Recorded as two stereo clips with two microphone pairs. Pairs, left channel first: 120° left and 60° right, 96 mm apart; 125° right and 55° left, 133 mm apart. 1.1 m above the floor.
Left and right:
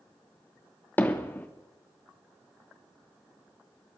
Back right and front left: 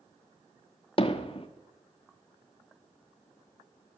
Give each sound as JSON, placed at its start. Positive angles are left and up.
{"t": 1.0, "sound": "hammering", "azimuth_deg": -170, "distance_m": 1.2}